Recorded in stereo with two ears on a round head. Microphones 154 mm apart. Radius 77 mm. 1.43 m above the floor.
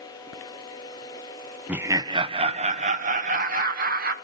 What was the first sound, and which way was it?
Laughter, 5° right (ahead or behind).